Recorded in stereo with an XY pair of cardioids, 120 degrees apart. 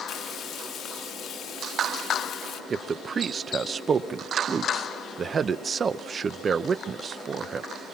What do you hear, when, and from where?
0.1 s frying: 60° left, 1.6 m
2.7 s a man speaking: 35° right, 0.9 m